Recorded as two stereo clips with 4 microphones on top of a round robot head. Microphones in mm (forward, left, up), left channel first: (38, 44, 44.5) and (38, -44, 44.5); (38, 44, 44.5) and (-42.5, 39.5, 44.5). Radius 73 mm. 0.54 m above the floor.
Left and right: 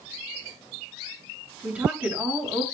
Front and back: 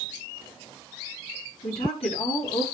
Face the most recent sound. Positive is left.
turn(degrees=-15)